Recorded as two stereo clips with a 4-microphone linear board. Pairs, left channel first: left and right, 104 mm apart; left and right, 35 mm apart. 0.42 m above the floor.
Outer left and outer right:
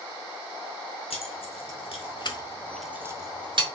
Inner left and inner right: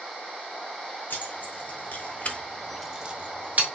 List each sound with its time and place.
1.1 s keys jangling: 75° left (ahead or behind), 1.6 m; by 3.6 s 55° right (ahead or behind), 0.9 m